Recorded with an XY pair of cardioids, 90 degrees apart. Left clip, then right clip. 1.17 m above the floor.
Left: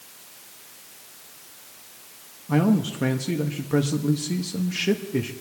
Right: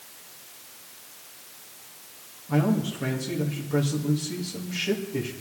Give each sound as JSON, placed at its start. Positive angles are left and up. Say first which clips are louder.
{"t": 2.5, "sound": "a man speaking", "louder": "left 3 dB", "azimuth_deg": 50, "distance_m": 1.4}